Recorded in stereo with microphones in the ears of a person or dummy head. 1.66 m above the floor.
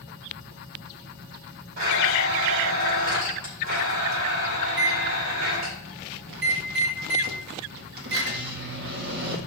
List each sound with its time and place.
1.8 s a blender: 50° right (ahead or behind), 3.5 m
4.7 s a microwave: 60° right (ahead or behind), 2.0 m